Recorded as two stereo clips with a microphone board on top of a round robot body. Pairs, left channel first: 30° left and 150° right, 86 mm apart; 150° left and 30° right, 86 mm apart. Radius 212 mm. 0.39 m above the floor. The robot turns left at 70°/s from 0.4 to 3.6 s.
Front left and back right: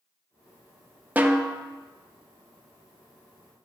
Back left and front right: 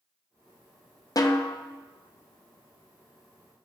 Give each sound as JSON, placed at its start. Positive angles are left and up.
{"t": 1.2, "sound": "a snare drum", "azimuth_deg": 150, "distance_m": 0.9}